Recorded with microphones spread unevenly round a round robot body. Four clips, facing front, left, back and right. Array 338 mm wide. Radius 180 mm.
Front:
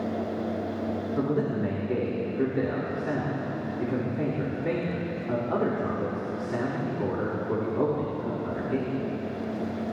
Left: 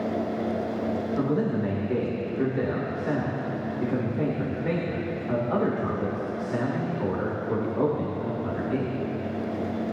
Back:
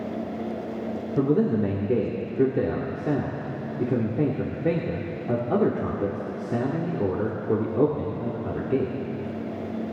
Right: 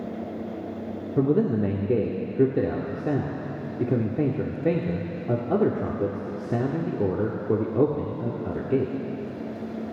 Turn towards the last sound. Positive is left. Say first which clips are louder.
# right 7 dB, back 7 dB
turn(degrees=-125)